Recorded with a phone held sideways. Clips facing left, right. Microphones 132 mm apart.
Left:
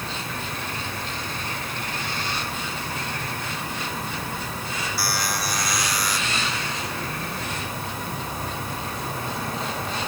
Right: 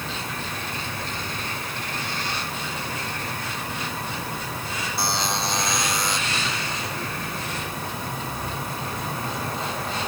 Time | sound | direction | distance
5.0 | a buzzer | 20° right (ahead or behind) | ?